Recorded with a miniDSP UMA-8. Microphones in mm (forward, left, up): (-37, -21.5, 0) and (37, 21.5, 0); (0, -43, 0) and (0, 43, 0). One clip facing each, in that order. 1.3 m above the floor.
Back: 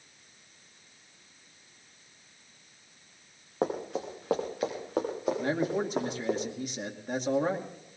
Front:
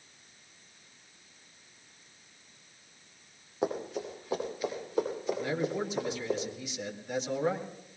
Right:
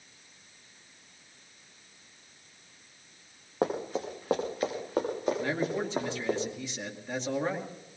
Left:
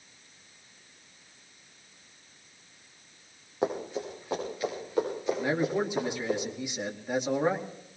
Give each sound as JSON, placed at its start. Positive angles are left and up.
{"t": 3.6, "sound": "running footsteps", "azimuth_deg": -125, "distance_m": 5.0}
{"t": 5.4, "sound": "a man speaking", "azimuth_deg": 165, "distance_m": 2.5}